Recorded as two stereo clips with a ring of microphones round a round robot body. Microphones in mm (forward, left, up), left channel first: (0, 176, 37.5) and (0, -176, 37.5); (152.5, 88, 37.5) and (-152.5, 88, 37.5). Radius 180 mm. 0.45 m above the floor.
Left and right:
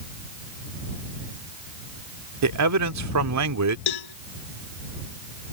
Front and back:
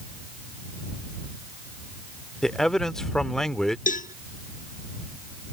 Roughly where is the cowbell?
Ahead left.